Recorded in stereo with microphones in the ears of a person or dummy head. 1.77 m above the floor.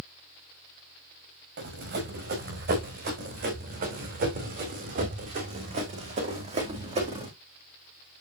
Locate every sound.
1.6 s running footsteps: 70° right (ahead or behind), 6 m; by 7.3 s 35° right (ahead or behind), 4 m